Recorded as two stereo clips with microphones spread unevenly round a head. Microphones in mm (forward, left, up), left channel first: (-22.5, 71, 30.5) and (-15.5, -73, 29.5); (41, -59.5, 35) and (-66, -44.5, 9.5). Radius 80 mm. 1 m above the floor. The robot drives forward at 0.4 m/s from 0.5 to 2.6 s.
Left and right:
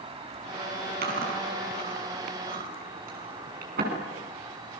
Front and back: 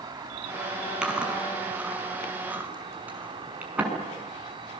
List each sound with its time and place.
0.0 s an insect: 140° right, 3 m; by 4.8 s 145° right, 4 m
1.0 s chewing: 105° right, 6.5 m; by 3.9 s 110° right, 6.5 m